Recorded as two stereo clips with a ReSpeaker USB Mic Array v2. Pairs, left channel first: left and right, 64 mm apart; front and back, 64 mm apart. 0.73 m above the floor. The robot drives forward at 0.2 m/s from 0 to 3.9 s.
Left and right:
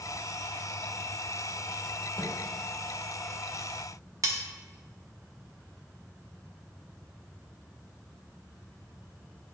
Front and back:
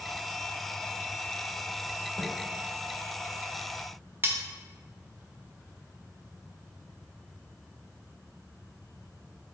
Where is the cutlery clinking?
125° right, 0.5 m.